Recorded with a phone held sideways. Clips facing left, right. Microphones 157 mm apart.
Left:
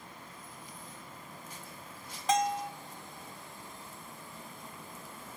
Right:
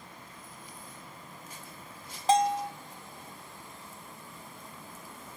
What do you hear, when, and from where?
2.3 s a bell: 30° right (ahead or behind), 0.6 m